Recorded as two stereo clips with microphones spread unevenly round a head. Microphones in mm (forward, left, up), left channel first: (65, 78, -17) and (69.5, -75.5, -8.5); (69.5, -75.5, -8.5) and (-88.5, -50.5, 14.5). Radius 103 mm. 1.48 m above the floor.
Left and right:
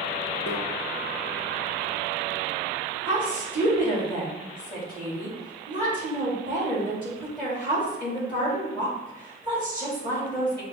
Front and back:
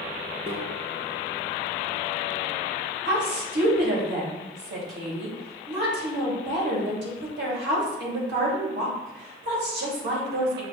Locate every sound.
0.5 s a microwave: 125° left, 0.7 m
3.0 s a woman speaking: 175° left, 2 m